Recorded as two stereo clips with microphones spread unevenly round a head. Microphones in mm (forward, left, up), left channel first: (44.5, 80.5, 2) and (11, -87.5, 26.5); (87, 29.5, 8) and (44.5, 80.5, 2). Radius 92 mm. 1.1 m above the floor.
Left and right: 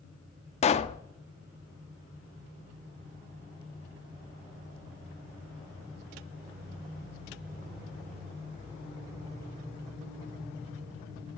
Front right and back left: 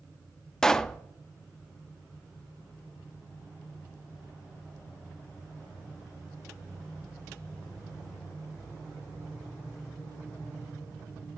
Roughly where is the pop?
Ahead left.